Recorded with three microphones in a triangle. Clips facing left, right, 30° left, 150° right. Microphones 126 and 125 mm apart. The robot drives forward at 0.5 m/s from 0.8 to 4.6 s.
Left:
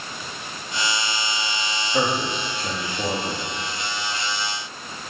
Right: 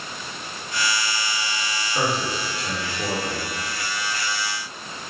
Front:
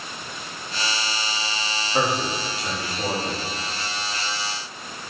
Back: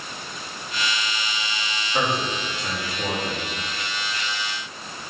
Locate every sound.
1.9 s a man speaking: 115° left, 3 m; by 3.5 s 125° left, 3 m